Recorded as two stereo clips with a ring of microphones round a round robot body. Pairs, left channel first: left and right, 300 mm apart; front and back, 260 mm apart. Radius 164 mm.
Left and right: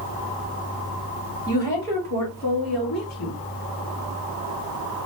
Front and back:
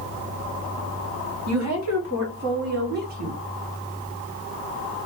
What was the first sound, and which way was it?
A woman speaking, 155° left.